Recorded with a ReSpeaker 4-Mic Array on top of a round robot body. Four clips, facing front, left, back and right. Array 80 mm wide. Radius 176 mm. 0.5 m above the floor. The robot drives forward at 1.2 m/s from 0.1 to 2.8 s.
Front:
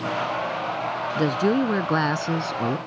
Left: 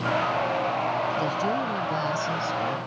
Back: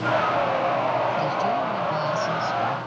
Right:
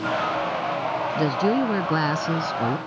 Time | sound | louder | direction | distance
1.1 | a woman speaking | right 4 dB, front 2 dB | 30° right | ?